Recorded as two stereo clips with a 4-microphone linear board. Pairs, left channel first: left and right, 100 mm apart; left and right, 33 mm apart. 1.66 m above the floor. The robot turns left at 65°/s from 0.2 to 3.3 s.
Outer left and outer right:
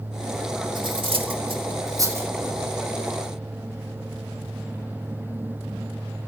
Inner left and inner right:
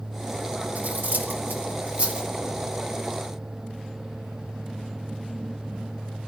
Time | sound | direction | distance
0.8 | cutlery clinking | 50° right (ahead or behind) | 2 m